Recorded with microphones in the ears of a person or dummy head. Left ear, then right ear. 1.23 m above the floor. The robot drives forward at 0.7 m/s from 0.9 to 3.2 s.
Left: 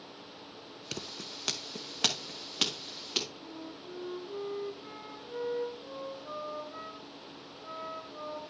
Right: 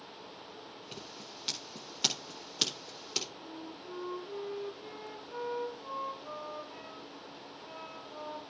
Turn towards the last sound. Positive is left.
turn(degrees=-30)  # may be behind; listen again after turning